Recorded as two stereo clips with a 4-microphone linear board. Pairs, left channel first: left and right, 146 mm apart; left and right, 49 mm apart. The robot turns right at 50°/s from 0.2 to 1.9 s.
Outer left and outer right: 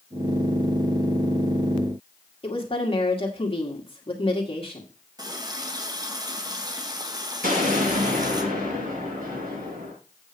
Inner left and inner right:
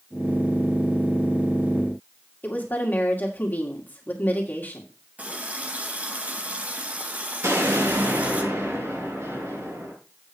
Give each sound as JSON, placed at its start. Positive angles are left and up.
{"t": 2.4, "sound": "a woman speaking", "side_deg": 40, "distance_m": 2.0}
{"t": 5.2, "sound": "a running tap", "side_deg": -25, "distance_m": 1.3}
{"t": 7.4, "sound": "an explosion", "side_deg": -75, "distance_m": 6.0}